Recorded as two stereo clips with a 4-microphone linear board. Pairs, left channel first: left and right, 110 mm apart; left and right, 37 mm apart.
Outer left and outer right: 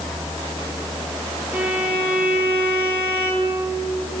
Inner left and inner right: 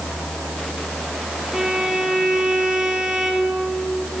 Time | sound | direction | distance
1.5 | a violin | 10° right (ahead or behind) | 2.5 m